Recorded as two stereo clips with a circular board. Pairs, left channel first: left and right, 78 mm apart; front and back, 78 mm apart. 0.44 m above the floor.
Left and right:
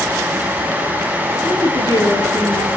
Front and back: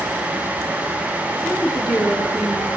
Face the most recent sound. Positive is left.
turn(degrees=95)